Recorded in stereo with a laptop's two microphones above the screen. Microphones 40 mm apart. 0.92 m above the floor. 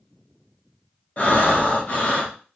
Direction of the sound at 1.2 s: 45° left (ahead or behind).